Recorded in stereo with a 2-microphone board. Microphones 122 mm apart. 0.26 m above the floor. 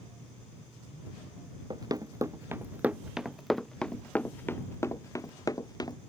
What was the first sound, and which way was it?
Running footsteps, 35° right (ahead or behind).